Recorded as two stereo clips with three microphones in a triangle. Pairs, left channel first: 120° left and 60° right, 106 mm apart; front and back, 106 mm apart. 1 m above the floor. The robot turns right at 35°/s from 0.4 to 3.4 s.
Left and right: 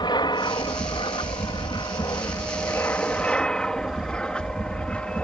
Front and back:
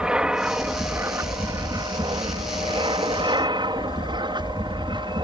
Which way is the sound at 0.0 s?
100° left.